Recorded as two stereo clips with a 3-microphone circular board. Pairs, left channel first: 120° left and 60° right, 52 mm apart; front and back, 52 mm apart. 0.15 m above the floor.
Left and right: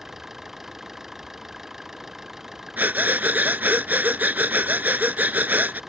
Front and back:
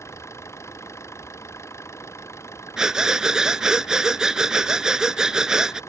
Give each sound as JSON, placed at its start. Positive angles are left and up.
{"t": 0.0, "sound": "an engine running", "azimuth_deg": 25}
{"t": 2.8, "sound": "breathing", "azimuth_deg": -105}